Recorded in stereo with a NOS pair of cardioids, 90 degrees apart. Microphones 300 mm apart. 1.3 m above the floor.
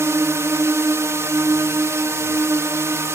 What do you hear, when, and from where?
0.0 s a drone: 10° right